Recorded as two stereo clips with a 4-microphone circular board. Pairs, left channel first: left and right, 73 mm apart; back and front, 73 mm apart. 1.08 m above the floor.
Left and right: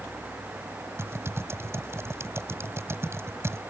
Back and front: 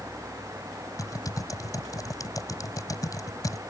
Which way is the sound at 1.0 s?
145° right.